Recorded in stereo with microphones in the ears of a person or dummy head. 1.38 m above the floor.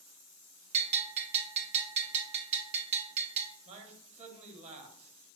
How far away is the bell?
About 0.7 m.